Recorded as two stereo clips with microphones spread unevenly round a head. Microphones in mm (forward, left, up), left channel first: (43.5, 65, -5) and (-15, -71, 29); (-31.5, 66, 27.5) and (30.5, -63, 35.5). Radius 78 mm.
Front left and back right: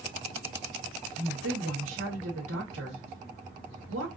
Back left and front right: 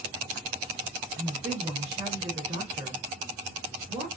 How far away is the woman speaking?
About 1.1 m.